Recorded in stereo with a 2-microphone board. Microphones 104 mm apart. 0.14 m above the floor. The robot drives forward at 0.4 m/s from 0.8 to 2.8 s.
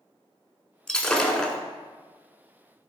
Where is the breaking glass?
5° left (ahead or behind), 0.9 m.